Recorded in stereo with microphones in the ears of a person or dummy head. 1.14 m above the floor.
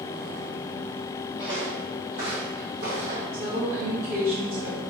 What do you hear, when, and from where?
1.4 s footsteps: 35° right (ahead or behind), 1.6 m; by 3.2 s 60° right (ahead or behind), 2 m
3.3 s a woman speaking: 50° right (ahead or behind), 1.6 m